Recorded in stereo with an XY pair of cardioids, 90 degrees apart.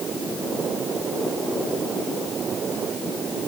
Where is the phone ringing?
I don't hear a phone ringing.